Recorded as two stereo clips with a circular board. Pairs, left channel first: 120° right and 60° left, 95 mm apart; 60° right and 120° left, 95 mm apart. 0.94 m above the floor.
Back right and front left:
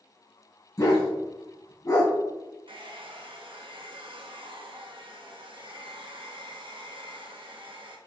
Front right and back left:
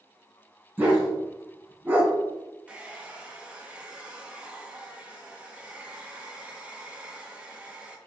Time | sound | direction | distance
0.8 | a dog barking | 170° right | 2.5 m
2.7 | a hair dryer | 45° left | 1.1 m